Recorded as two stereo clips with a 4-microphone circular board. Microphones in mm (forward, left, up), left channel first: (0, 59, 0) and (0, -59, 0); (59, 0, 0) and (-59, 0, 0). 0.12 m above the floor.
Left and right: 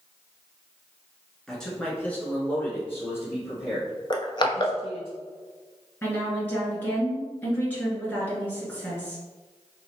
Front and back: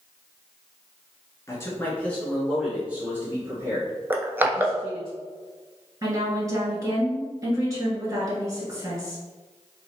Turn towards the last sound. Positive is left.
turn(degrees=150)